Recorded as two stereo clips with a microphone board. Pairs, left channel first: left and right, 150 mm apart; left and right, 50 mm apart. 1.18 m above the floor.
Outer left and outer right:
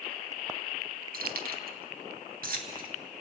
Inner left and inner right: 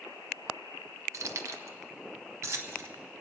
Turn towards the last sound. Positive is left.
turn(degrees=-70)  # may be behind; listen again after turning